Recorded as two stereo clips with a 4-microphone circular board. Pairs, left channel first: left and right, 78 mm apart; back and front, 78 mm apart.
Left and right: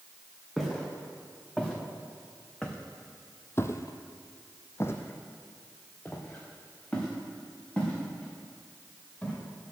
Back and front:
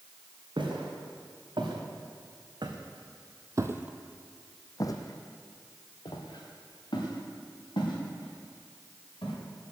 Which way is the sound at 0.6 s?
Straight ahead.